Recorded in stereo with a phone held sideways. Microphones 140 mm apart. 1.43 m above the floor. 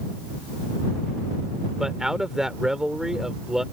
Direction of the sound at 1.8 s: 5° right (ahead or behind).